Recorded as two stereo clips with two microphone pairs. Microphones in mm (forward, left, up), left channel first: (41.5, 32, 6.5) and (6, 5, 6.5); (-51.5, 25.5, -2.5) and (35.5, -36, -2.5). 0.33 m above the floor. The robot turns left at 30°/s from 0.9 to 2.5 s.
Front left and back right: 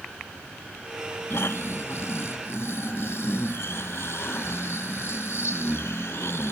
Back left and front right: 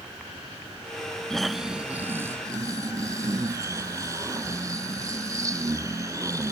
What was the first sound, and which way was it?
Snoring, 60° left.